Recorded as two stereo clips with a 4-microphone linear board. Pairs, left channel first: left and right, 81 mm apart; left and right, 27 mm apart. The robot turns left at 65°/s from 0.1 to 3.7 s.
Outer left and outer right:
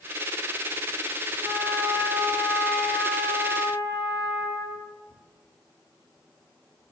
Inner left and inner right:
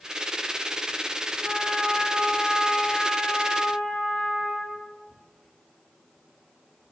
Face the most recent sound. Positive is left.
turn(degrees=100)